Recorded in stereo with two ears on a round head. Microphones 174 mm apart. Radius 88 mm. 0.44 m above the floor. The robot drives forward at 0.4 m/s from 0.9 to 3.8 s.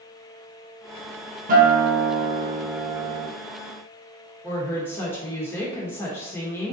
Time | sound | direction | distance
1.5 | a guitar | 45° right (ahead or behind) | 0.8 m
4.4 | a woman speaking | 10° left (ahead or behind) | 0.8 m